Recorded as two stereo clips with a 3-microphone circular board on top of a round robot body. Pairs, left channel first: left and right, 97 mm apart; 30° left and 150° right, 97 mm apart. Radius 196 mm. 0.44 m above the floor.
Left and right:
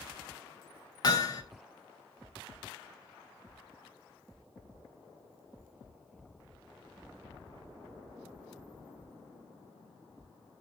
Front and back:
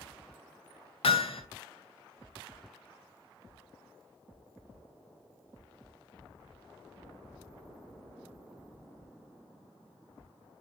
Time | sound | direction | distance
1.0 | hammering | 45° left | 2.5 m